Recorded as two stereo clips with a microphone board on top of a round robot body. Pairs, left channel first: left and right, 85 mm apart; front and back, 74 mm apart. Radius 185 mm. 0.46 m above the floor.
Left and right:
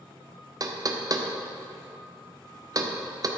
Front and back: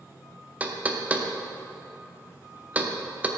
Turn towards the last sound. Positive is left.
turn(degrees=-115)